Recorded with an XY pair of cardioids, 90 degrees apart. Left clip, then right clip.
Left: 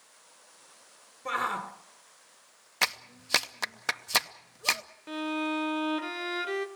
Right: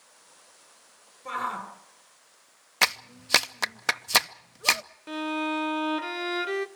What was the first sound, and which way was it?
A shout, 45° left.